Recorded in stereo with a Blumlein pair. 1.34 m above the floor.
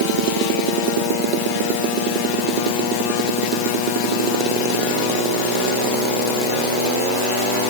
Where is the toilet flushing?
I don't hear a toilet flushing.